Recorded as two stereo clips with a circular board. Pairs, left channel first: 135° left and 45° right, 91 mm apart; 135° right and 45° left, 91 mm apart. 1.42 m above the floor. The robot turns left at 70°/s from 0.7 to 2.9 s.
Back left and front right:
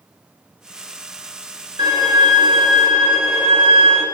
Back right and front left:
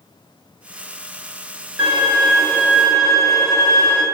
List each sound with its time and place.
1.8 s a violin: 30° right, 4 m; by 4.0 s 105° right, 4 m